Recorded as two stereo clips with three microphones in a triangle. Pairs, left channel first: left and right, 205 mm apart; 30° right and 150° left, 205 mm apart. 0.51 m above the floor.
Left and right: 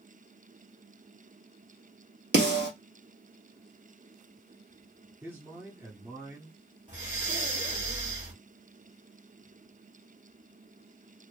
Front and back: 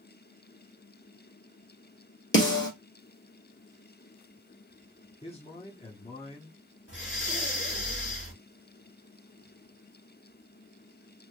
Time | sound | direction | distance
2.3 | a snare drum | 55° right | 1.8 m
5.2 | a man speaking | 25° right | 0.8 m
6.9 | breathing | 40° right | 1.6 m